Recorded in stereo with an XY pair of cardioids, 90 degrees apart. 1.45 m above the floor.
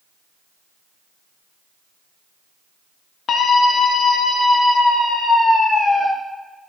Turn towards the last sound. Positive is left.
turn(degrees=50)